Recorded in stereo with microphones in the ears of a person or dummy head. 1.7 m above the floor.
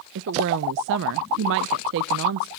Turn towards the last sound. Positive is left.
turn(degrees=-60)  # may be behind; listen again after turning